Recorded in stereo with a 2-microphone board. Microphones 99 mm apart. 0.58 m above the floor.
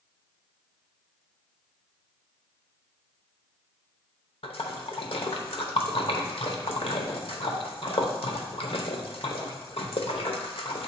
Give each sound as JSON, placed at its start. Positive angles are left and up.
{"t": 4.4, "sound": "a splash", "side_deg": 65, "distance_m": 0.8}